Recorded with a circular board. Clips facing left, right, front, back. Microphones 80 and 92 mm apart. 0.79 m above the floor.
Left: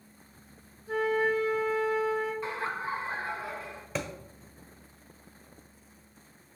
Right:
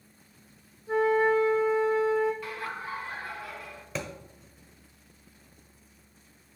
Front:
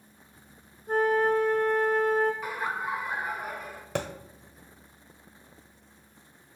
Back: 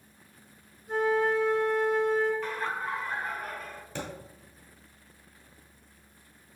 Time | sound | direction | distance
0.9 | a flute | 35° right | 1.4 m
2.4 | laughter | 65° left | 0.9 m
4.0 | a thud | straight ahead | 1.0 m